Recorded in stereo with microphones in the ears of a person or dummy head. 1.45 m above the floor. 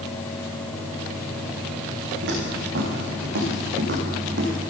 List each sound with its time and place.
2.2 s footsteps: 70° right (ahead or behind), 6 m; by 4.5 s 55° right (ahead or behind), 4 m